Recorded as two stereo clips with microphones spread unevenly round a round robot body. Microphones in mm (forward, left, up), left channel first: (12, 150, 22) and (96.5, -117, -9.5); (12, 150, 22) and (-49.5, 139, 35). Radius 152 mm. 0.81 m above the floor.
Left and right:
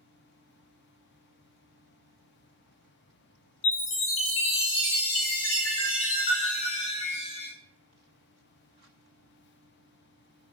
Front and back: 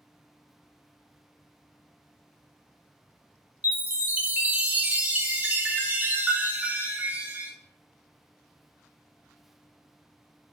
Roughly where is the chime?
Behind left.